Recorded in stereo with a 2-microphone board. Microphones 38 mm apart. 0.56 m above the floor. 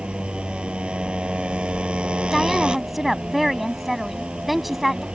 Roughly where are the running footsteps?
No running footsteps in this recording.